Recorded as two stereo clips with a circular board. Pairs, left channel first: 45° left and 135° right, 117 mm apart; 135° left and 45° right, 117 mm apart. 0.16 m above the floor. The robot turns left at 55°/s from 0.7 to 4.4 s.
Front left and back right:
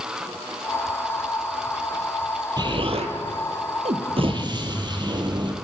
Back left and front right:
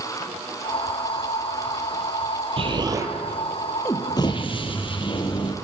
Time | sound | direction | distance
2.6 | an explosion | 85° right | 1.1 m